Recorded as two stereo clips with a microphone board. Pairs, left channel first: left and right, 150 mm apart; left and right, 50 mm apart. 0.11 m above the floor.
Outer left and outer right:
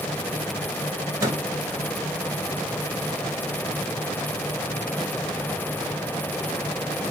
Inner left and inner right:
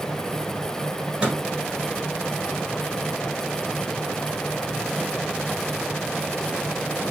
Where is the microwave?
20° right (ahead or behind), 1.3 m.